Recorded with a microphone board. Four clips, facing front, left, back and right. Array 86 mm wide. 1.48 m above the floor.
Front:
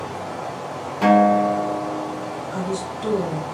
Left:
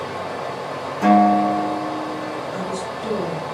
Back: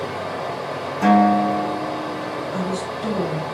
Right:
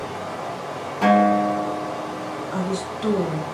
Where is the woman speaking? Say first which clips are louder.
Even, back 1 dB; 75° right, 1.5 m.